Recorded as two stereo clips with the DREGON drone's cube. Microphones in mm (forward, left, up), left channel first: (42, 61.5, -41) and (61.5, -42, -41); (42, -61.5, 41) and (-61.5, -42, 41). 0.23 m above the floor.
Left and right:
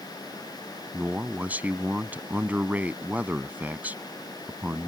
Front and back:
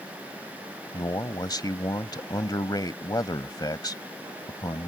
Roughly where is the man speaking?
Ahead.